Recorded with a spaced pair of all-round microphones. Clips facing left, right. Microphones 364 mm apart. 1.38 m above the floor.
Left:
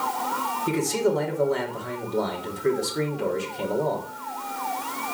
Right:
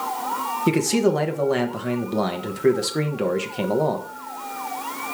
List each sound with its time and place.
0.7 s a man speaking: 80° right, 1.1 m